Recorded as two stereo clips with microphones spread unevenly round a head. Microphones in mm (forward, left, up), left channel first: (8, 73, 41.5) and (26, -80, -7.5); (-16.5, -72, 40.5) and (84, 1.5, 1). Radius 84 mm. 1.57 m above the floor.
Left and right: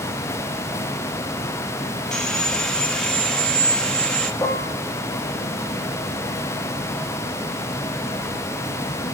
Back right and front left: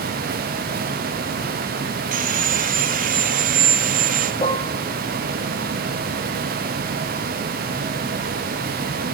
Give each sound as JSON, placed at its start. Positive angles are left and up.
{"t": 2.1, "sound": "sawing", "azimuth_deg": 25, "distance_m": 1.4}
{"t": 4.4, "sound": "dishes clattering", "azimuth_deg": 165, "distance_m": 1.9}